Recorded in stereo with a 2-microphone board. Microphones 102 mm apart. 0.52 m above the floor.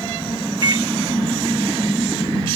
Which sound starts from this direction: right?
A microwave, at 0.6 s.